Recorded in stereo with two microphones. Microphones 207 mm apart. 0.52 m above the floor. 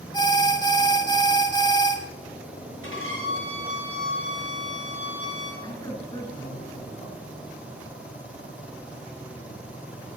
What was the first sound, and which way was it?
An alarm, 20° left (ahead or behind).